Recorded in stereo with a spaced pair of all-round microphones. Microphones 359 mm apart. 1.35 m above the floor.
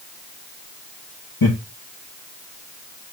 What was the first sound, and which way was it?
Laughter, 85° left.